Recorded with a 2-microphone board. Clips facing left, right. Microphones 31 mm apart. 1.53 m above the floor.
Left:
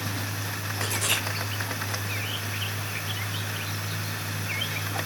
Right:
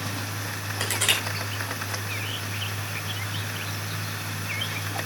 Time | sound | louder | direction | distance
0.8 | crushing | right 3 dB | 85° right | 9.5 m